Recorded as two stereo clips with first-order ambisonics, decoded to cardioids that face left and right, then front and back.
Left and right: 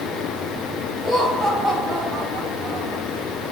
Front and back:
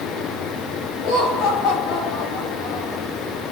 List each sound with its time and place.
1.0 s laughter: straight ahead, 3.5 m; by 3.0 s 20° right, 4.5 m